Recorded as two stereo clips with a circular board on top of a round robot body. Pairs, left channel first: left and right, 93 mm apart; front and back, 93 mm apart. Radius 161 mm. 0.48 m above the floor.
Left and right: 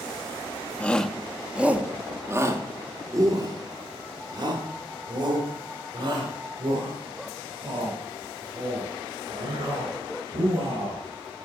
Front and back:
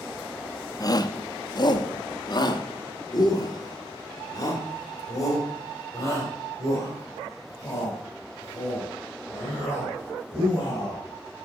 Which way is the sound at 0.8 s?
20° left.